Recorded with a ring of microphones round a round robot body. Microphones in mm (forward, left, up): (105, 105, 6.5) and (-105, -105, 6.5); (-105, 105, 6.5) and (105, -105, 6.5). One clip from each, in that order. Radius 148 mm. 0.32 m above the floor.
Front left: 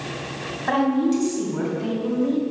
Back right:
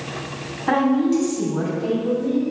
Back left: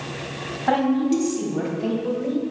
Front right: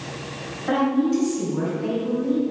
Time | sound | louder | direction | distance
0.7 | a woman speaking | back right 2 dB, back left 1 dB | 100° left | 3 m